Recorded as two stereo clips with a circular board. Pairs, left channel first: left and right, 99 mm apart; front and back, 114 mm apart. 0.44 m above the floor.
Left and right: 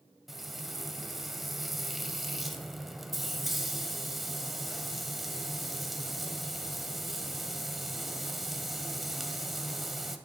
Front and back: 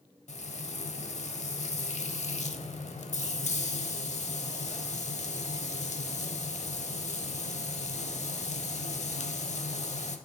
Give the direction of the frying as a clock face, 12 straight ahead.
12 o'clock.